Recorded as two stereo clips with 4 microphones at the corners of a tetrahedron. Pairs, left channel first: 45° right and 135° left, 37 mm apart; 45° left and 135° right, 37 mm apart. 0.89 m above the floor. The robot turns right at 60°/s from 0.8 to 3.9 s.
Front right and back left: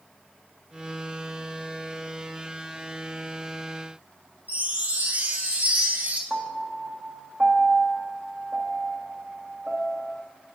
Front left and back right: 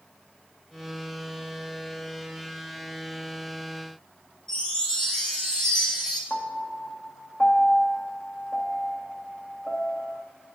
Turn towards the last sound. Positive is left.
turn(degrees=85)